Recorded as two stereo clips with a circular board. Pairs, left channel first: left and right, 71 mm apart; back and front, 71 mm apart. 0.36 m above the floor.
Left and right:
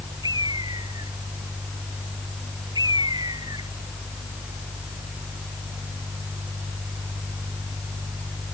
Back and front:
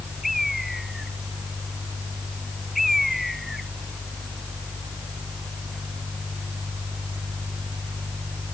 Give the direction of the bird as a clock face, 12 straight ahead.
3 o'clock.